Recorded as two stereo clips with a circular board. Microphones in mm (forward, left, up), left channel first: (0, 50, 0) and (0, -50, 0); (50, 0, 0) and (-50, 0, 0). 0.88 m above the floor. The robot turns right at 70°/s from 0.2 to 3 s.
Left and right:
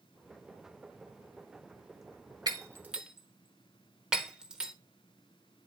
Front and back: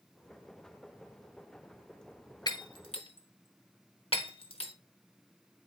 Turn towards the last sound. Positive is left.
turn(degrees=-5)